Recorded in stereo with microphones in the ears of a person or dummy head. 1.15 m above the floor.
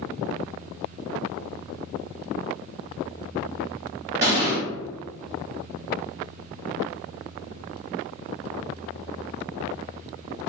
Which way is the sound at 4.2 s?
15° right (ahead or behind).